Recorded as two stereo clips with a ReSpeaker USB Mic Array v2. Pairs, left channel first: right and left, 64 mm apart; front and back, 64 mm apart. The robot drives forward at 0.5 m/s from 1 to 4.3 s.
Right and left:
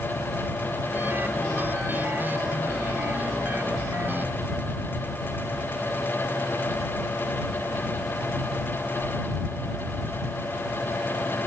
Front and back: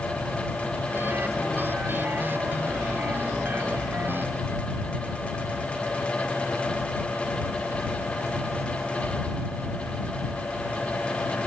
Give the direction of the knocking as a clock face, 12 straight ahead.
No knocking in this recording.